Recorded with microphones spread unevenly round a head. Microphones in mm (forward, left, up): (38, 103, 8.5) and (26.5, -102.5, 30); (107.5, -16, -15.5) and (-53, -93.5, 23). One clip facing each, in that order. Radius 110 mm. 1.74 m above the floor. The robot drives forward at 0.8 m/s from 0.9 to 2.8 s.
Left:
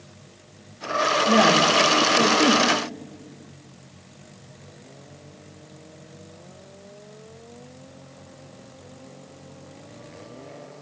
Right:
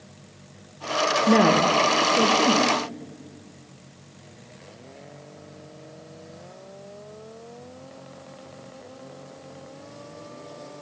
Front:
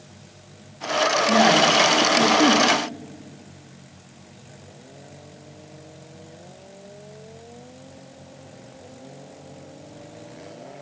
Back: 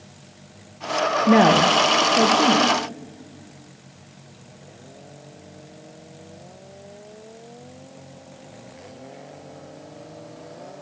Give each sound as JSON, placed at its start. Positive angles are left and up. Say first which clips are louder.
{"t": 1.3, "sound": "a woman speaking", "louder": "right 1 dB, back 4 dB", "azimuth_deg": -140, "distance_m": 1.2}